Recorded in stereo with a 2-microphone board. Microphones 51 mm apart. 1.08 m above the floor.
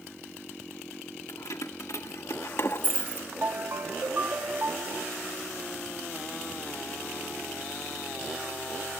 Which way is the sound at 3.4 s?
55° right (ahead or behind).